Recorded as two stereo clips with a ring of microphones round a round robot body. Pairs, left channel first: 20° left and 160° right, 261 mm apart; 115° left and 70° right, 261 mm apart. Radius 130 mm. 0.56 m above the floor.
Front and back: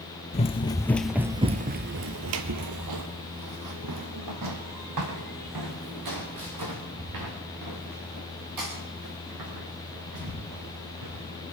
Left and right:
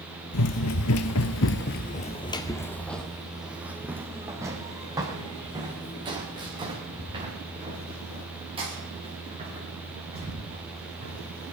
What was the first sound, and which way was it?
Running footsteps, 85° left.